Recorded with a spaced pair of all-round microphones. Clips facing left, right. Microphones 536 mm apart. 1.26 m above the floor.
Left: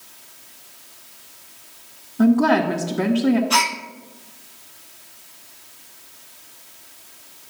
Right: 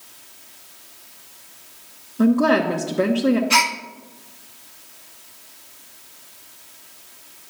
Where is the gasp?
50° right (ahead or behind), 0.6 m.